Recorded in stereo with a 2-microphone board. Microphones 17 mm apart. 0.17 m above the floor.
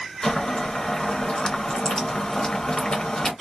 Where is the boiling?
45° left (ahead or behind), 1.5 m.